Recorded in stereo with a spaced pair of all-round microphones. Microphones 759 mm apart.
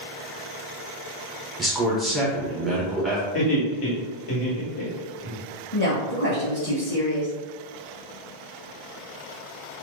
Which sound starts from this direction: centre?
A man speaking, at 1.6 s.